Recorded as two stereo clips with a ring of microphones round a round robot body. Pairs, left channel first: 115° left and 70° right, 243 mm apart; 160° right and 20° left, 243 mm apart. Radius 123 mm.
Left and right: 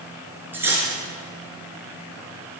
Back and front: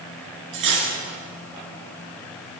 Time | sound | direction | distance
0.5 | cutlery clinking | 15° left | 3 m